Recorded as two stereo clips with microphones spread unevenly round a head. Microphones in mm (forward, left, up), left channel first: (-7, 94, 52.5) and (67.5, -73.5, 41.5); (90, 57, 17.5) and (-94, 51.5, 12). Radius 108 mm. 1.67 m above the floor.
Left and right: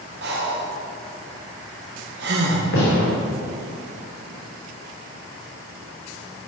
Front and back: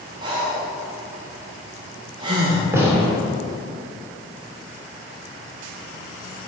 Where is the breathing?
105° right, 1.0 m.